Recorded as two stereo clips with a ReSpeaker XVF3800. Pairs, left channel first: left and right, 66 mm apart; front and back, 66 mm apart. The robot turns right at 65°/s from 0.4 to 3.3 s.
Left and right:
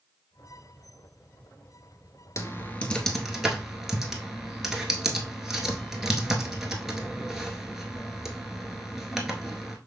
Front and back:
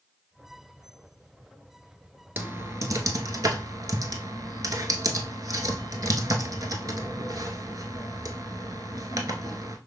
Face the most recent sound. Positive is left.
turn(degrees=-175)